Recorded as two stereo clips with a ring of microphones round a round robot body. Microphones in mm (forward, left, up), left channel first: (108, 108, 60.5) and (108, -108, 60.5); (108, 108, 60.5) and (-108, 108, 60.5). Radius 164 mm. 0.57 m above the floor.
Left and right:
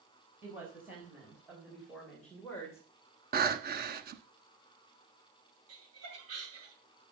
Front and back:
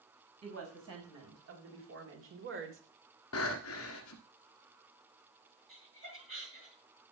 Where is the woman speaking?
170° right, 5 m; by 2.8 s 170° left, 2.5 m.